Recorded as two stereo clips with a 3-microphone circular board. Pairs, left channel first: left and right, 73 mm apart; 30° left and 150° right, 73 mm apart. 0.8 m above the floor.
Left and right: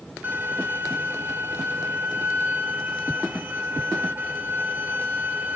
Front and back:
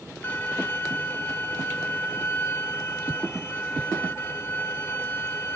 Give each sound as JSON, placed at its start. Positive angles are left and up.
{"t": 0.2, "sound": "a violin", "azimuth_deg": -25, "distance_m": 1.3}